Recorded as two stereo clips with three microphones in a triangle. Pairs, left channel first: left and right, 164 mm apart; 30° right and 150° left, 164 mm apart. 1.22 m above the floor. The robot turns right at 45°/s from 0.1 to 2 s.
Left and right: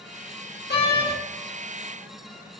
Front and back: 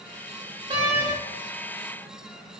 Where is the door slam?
90° left, 1.4 m; by 1.1 s 110° left, 1.4 m.